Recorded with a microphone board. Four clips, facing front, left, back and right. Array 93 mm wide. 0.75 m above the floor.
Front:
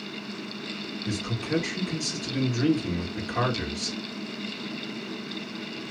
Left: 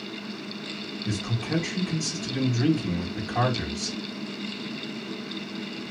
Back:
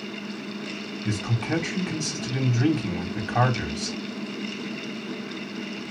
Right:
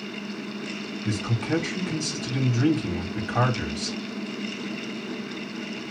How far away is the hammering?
I don't hear hammering.